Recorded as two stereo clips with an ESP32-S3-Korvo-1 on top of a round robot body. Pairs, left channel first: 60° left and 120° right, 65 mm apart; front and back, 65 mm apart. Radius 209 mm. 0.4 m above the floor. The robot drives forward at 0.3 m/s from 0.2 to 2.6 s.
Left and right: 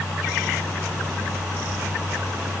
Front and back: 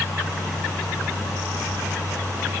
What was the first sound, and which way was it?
Only background noise.